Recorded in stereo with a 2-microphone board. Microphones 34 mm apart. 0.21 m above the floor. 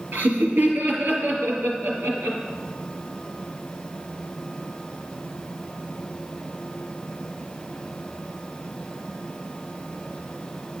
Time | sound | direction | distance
0.1 | laughter | 70° right (ahead or behind) | 4.5 m